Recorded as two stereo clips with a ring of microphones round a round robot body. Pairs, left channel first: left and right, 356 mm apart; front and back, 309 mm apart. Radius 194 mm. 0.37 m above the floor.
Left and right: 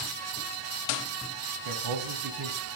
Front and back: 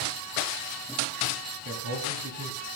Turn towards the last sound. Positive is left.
turn(degrees=-135)